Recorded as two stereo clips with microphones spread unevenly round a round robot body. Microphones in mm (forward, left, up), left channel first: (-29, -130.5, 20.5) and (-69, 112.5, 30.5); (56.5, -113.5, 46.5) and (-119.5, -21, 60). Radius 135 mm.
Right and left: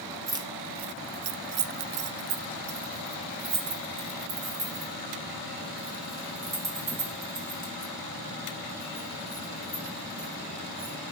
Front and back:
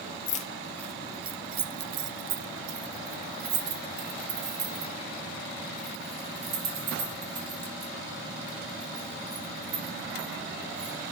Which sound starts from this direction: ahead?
Keys jangling, at 0.3 s.